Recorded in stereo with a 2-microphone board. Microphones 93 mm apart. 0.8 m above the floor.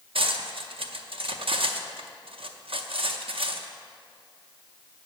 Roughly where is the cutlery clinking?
Right.